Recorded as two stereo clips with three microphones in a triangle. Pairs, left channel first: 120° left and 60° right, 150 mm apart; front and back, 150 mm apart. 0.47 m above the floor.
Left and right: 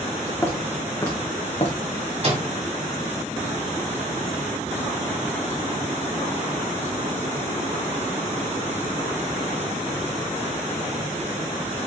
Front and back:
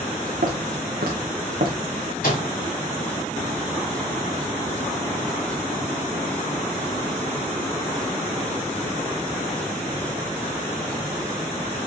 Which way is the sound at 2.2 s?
15° right.